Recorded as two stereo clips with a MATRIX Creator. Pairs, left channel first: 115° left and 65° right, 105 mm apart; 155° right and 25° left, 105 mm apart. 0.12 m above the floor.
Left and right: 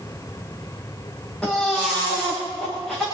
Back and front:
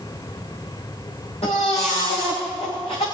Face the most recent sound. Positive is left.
turn(degrees=-165)